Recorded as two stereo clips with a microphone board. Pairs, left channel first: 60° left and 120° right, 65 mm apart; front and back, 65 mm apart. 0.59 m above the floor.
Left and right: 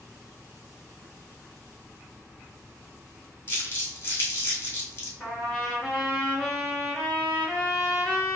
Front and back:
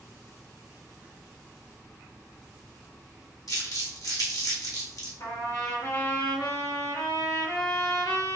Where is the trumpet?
20° right, 1.9 m.